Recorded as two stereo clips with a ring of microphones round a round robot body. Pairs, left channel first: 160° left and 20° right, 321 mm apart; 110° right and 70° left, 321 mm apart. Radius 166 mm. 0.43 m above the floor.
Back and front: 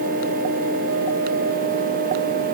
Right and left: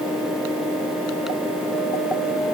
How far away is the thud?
I don't hear a thud.